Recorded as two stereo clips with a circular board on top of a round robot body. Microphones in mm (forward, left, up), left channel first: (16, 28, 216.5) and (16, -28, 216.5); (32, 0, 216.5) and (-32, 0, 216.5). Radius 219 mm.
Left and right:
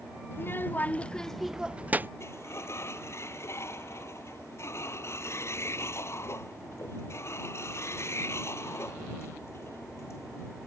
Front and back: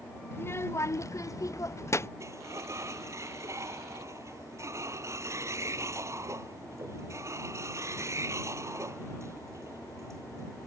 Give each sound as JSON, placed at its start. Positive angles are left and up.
{"t": 0.3, "sound": "a child speaking", "azimuth_deg": 50}
{"t": 2.2, "sound": "a sliding door", "azimuth_deg": 135}